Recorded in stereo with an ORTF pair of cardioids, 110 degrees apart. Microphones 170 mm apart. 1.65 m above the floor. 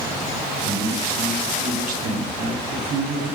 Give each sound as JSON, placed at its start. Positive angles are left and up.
{"t": 0.6, "sound": "a man speaking", "azimuth_deg": -65, "distance_m": 6.0}